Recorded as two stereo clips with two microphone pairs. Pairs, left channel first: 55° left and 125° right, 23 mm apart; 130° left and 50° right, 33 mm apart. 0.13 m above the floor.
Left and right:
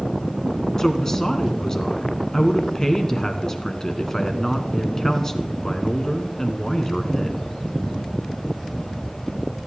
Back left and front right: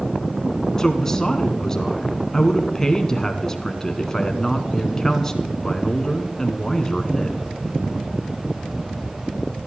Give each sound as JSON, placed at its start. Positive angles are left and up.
{"t": 0.8, "sound": "a woman speaking", "azimuth_deg": 75, "distance_m": 1.2}